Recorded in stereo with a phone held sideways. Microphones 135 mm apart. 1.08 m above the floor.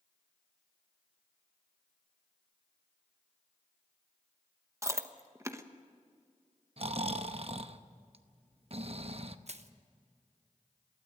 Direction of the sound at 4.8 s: 20° right (ahead or behind).